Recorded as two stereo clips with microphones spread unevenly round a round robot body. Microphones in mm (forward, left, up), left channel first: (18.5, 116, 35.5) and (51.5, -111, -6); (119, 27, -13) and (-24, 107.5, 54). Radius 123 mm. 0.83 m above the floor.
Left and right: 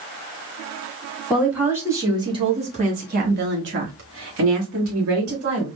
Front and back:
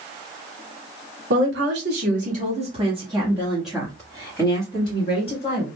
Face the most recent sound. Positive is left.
turn(degrees=-75)